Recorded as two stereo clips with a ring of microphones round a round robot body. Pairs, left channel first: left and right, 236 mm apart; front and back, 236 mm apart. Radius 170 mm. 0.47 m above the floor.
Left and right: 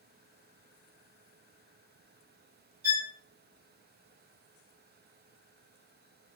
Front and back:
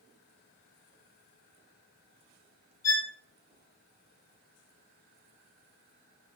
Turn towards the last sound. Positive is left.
turn(degrees=-75)